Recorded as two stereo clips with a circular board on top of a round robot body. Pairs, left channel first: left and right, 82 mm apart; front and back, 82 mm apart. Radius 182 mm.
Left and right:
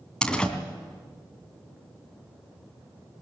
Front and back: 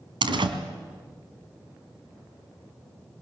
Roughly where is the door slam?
Behind.